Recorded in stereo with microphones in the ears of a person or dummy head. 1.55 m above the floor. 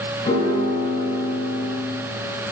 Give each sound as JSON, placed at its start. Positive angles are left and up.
{"t": 0.2, "sound": "a piano", "side_deg": 25, "distance_m": 6.5}